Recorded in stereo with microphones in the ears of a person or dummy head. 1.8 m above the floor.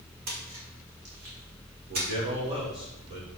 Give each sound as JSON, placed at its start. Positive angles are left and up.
{"t": 0.3, "sound": "a splash", "side_deg": -50, "distance_m": 2.0}
{"t": 1.9, "sound": "a man speaking", "side_deg": -30, "distance_m": 2.5}